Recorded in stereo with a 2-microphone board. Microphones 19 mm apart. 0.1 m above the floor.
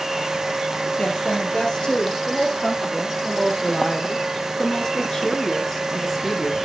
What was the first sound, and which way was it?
A woman speaking, 55° left (ahead or behind).